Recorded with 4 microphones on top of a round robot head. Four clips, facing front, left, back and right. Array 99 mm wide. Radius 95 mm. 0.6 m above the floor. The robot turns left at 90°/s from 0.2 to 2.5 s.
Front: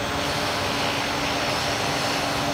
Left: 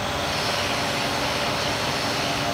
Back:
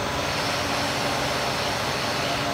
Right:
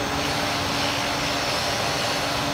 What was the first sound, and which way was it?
Only background noise.